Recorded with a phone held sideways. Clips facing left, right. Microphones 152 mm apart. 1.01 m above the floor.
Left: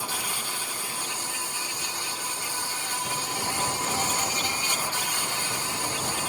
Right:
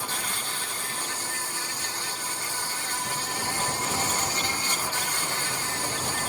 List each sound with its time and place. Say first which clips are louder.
0.0 s an insect: even; 10° left (ahead or behind)